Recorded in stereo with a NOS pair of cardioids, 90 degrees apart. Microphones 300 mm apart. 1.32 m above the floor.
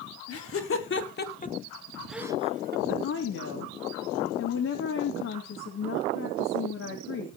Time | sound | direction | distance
0.3 | laughter | 50° left | 3.5 m
2.9 | a woman speaking | 60° left | 3 m